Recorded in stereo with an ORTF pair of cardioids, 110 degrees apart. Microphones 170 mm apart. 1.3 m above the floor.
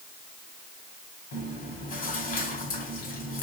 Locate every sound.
1.3 s chewing: 65° left, 2.5 m